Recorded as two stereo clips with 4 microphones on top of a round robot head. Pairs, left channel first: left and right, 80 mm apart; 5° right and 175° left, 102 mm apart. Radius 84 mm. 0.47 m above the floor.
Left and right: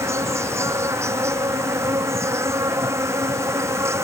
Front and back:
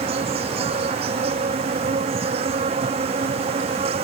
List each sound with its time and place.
0.0 s an insect: 145° right